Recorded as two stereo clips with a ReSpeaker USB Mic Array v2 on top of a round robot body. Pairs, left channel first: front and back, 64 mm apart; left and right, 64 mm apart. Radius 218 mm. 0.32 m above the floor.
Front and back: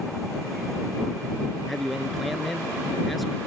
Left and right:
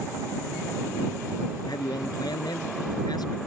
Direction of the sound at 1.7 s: 90° left.